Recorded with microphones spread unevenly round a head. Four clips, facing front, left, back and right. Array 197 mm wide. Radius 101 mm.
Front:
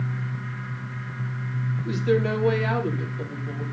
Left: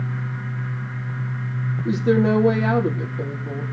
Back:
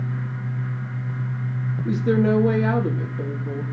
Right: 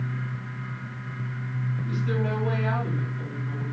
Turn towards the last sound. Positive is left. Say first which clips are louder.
# left 12 dB, back 3 dB
turn(degrees=120)